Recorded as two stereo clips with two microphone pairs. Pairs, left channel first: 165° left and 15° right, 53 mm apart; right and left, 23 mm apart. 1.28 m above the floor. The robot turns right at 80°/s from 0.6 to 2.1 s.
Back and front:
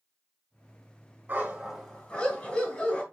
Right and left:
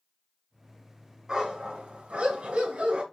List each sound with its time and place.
1.3 s a dog barking: 30° left, 3.5 m; by 3.0 s 95° left, 3.5 m